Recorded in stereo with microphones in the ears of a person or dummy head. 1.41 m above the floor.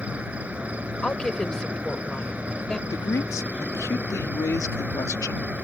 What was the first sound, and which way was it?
An insect, 10° right (ahead or behind).